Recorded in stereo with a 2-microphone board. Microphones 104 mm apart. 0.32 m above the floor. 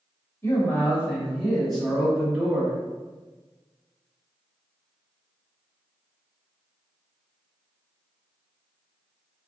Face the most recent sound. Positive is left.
turn(degrees=-10)  # may be behind; listen again after turning